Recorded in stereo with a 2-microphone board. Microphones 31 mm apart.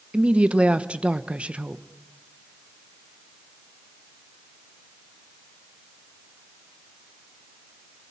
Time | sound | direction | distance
0.1 | a woman speaking | 40° right (ahead or behind) | 0.9 m